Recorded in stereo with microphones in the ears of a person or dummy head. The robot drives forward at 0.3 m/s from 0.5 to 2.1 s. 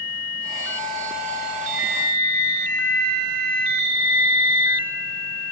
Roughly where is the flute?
Left.